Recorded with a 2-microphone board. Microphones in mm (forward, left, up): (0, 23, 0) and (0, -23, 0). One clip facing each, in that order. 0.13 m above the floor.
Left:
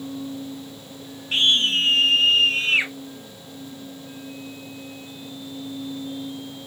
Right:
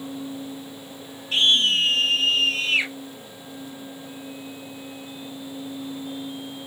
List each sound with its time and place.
1.3 s a scream: 30° left (ahead or behind), 2 m